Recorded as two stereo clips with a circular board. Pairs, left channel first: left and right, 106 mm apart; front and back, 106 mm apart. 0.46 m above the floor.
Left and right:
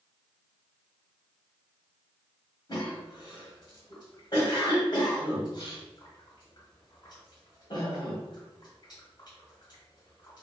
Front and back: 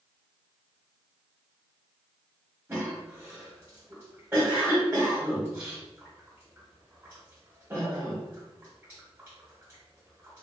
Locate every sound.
2.7 s a cough: 110° left, 1.2 m